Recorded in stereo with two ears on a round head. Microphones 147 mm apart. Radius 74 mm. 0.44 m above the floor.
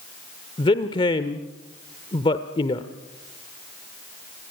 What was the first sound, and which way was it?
A man speaking, 30° left (ahead or behind).